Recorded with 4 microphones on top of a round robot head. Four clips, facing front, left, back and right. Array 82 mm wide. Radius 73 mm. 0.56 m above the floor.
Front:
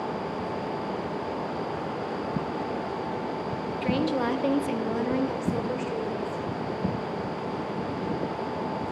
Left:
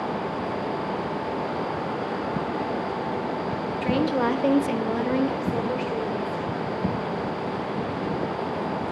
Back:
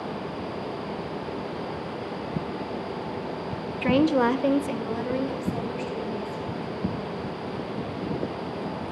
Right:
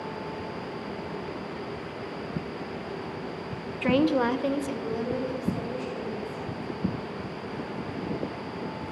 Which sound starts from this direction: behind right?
A woman speaking, at 3.8 s.